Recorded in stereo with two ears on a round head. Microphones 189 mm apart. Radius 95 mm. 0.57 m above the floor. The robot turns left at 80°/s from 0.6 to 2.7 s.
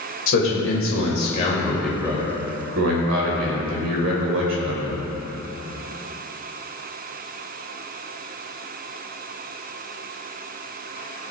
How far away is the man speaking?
About 2.5 m.